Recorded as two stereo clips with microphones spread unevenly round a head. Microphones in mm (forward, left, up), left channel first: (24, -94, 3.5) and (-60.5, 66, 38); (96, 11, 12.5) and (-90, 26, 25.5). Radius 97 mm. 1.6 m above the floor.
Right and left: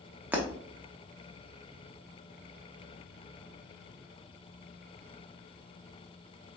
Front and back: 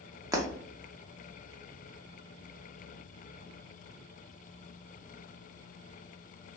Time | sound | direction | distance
0.3 | breaking glass | 150° left | 0.7 m